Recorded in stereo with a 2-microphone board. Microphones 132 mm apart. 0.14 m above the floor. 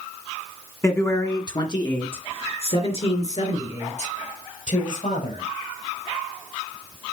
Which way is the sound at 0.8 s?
20° left (ahead or behind).